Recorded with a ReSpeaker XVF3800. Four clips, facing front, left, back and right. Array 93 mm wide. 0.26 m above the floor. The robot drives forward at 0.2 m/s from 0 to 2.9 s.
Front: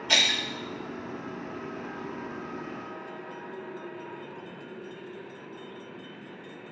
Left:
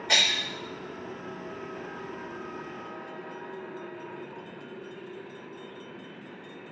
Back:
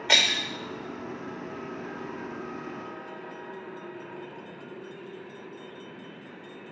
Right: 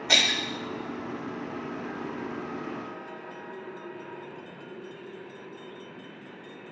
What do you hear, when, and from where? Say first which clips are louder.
0.1 s breaking glass: right 1 dB, back 2 dB; 165° right, 1.7 m